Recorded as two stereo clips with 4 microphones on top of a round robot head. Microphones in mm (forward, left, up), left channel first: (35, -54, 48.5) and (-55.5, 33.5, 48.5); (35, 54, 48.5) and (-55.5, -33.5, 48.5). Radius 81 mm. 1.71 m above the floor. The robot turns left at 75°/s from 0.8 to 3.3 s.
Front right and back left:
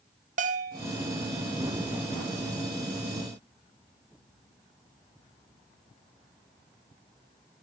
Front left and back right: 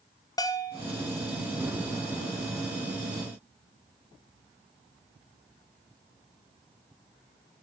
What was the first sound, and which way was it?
A bell, 105° left.